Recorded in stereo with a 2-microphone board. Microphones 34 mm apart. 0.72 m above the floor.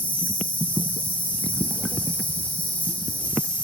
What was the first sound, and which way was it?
An insect, 55° left (ahead or behind).